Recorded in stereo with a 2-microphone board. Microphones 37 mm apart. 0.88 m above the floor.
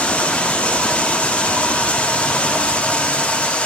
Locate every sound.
0.0 s running water: 35° left (ahead or behind), 1.3 m